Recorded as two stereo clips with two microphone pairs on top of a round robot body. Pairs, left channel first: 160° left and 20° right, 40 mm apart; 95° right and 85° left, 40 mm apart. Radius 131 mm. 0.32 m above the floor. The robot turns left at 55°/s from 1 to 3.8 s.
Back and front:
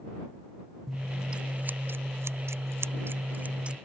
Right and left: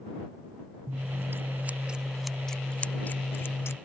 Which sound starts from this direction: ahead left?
Scissors, at 0.9 s.